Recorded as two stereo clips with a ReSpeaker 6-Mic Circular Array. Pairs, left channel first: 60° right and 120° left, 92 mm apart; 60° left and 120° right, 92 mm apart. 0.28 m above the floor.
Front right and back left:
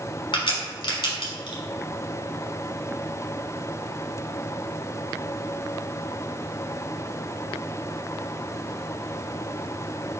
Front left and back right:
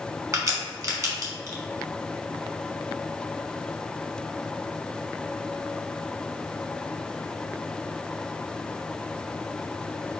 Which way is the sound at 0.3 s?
70° right.